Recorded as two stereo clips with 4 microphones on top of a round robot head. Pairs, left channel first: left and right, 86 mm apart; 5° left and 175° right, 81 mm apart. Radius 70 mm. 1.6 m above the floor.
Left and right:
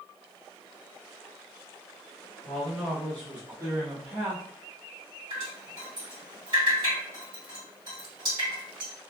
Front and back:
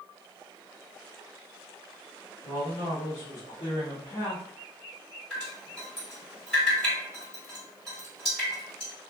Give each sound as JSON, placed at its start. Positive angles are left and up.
{"t": 2.4, "sound": "a man speaking", "azimuth_deg": 5, "distance_m": 1.8}
{"t": 5.3, "sound": "dripping", "azimuth_deg": -80, "distance_m": 1.8}